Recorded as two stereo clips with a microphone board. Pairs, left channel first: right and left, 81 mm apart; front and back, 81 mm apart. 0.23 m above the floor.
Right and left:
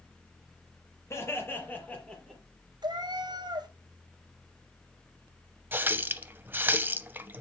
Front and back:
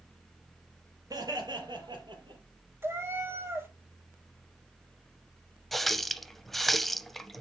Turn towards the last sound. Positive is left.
turn(degrees=80)